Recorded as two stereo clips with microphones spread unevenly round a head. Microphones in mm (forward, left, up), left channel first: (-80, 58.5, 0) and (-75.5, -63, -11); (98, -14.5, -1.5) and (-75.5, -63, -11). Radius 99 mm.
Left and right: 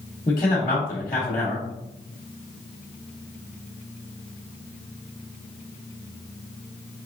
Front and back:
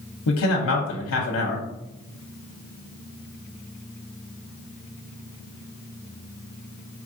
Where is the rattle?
No rattle in this recording.